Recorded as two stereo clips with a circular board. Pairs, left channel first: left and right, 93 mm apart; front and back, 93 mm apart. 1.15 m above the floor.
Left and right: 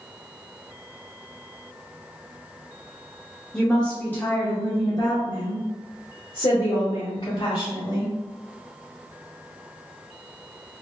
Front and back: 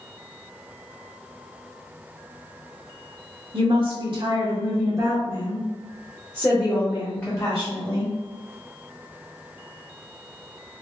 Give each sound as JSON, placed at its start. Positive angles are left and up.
{"t": 3.5, "sound": "a woman speaking", "azimuth_deg": 175, "distance_m": 1.2}